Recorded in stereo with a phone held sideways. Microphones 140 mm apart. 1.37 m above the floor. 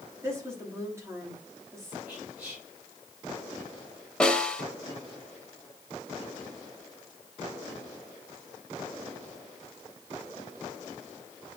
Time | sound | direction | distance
0.2 | a woman speaking | 20° right (ahead or behind) | 3 m
2.1 | whispering | 10° right (ahead or behind) | 4.5 m
4.2 | a snare drum | 5° left (ahead or behind) | 1.3 m